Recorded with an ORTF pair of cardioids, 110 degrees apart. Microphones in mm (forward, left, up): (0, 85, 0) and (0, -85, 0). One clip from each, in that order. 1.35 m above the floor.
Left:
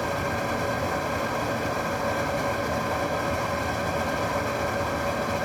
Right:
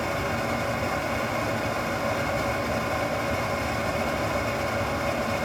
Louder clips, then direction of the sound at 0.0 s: Even; straight ahead.